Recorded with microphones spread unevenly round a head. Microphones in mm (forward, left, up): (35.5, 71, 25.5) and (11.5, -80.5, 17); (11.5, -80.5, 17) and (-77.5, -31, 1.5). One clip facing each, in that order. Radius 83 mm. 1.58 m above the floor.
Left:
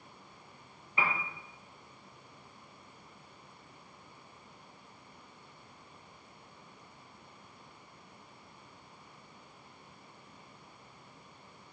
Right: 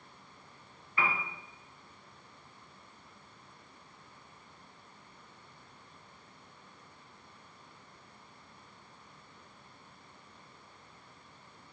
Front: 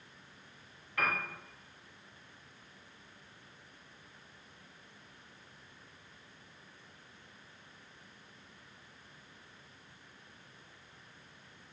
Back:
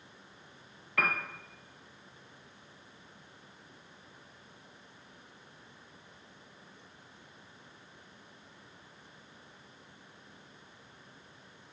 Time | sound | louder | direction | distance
1.0 | a piano | even, back 2 dB | 150° left | 1.4 m